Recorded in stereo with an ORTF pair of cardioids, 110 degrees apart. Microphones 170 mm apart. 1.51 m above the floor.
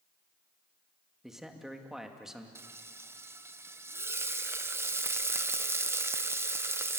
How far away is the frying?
About 1.0 m.